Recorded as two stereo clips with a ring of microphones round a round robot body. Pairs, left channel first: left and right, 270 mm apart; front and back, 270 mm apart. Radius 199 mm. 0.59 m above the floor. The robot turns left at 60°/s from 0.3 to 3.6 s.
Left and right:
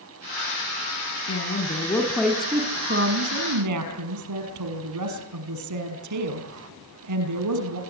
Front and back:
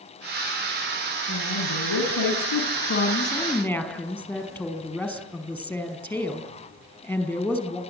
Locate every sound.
1.3 s a woman speaking: 55° left, 5.5 m; by 7.8 s 85° right, 5.5 m